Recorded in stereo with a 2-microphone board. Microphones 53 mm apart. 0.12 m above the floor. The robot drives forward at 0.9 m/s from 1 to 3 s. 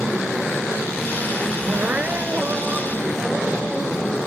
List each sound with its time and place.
1.7 s crying: 40° right (ahead or behind), 0.5 m; by 4.1 s 15° right (ahead or behind), 1.3 m